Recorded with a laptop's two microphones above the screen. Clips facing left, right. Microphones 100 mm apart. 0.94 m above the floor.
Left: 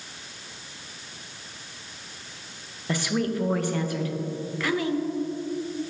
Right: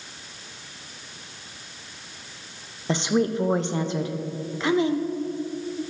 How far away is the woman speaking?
About 0.6 m.